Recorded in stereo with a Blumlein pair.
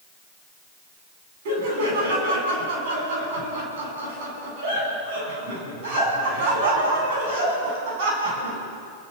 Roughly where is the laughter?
Ahead right.